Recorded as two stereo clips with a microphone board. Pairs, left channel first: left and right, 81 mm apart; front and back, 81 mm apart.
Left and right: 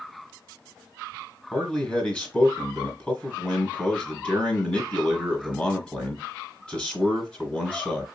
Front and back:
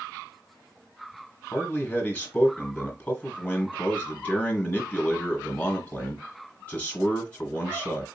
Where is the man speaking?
35° left, 1.5 m.